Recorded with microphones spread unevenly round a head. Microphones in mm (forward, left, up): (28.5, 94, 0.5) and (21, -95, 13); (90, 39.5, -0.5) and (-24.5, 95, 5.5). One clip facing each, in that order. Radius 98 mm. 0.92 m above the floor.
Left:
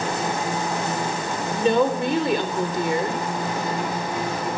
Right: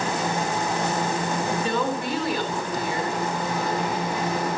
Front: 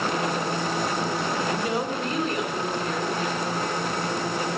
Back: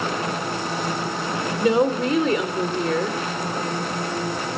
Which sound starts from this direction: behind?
A woman speaking, at 1.5 s.